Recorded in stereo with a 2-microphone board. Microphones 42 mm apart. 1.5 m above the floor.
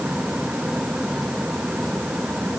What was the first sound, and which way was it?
Only background noise.